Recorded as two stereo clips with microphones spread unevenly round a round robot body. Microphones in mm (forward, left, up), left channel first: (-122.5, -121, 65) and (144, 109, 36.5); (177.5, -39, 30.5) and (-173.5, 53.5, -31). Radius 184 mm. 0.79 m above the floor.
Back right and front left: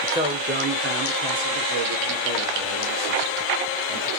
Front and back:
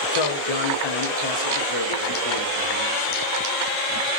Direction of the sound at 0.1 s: 35° right.